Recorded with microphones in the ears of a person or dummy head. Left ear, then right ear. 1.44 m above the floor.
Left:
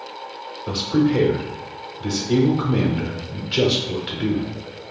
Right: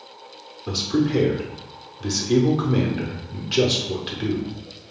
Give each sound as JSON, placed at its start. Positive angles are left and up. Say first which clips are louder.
{"t": 0.7, "sound": "a man speaking", "louder": "left 2 dB", "side_deg": -25, "distance_m": 0.7}